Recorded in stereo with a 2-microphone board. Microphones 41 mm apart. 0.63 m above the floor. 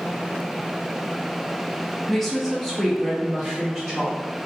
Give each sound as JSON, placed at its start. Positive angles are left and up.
{"t": 2.1, "sound": "a woman speaking", "side_deg": 5, "distance_m": 0.6}